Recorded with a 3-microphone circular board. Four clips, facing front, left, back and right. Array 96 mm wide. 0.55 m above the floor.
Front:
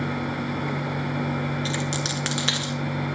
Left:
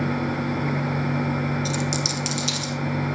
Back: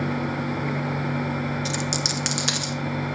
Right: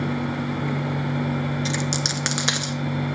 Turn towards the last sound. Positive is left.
turn(degrees=-80)